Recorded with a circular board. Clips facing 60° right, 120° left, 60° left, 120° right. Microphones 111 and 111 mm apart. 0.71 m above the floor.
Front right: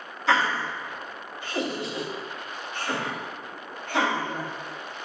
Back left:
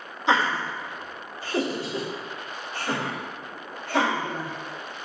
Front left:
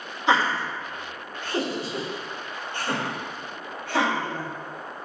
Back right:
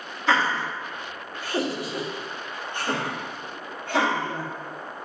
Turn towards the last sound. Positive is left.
turn(degrees=175)